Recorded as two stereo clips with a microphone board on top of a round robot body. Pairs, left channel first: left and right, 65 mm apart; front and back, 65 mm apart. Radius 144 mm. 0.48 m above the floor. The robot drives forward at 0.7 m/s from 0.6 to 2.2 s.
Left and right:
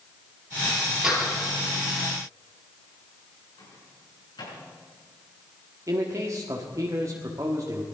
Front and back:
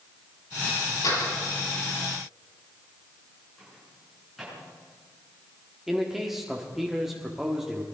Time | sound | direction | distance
1.0 | a door slam | 5° right | 7.5 m
3.6 | a microwave | 90° left | 6 m
5.9 | a man speaking | 95° right | 1.6 m